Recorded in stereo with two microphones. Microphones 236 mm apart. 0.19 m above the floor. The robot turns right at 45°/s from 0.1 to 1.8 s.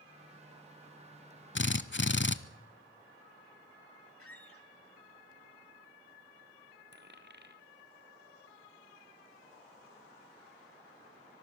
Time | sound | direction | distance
1.6 | a drill | 50° left (ahead or behind) | 0.6 m
4.2 | a squeak | 70° left (ahead or behind) | 1.0 m
6.9 | a dropped coin | 45° right (ahead or behind) | 1.0 m